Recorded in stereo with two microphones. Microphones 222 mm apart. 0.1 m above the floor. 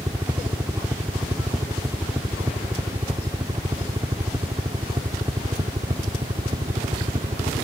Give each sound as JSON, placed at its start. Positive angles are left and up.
{"t": 0.0, "sound": "a helicopter", "side_deg": -10}